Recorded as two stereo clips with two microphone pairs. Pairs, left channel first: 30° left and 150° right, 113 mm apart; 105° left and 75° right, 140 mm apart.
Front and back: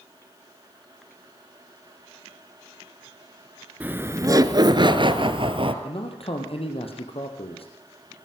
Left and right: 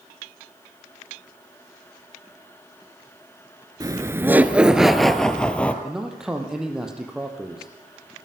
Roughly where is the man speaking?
Ahead.